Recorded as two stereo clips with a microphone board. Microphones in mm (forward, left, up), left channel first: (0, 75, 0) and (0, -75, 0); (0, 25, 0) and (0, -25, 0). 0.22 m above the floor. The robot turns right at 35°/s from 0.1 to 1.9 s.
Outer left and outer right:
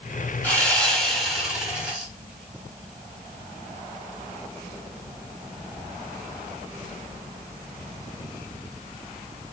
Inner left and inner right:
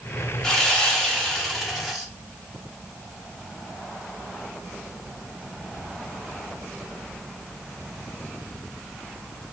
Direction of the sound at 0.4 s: 10° left (ahead or behind).